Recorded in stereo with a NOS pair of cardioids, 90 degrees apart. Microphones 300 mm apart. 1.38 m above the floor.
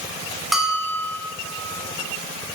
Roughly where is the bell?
Ahead.